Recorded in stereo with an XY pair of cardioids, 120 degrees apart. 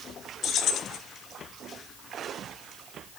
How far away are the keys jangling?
About 1.1 m.